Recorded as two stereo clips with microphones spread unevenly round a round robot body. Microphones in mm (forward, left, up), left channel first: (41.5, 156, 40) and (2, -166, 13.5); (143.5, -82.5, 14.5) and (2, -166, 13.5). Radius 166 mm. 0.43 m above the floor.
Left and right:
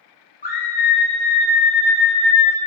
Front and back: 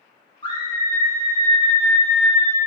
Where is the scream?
35° left, 1.0 m; by 2.6 s 130° left, 1.3 m.